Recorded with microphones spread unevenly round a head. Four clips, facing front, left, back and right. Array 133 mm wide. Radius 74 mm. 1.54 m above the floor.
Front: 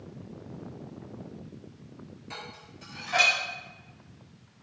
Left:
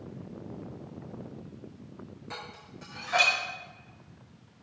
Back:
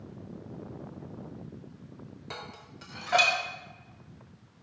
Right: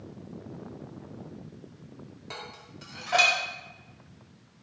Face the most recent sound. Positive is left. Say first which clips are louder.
# right 1 dB, back 1 dB
turn(degrees=-135)